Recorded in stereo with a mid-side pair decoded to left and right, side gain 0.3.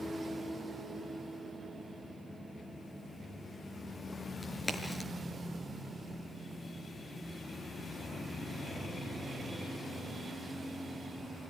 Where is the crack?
25° left, 5 m.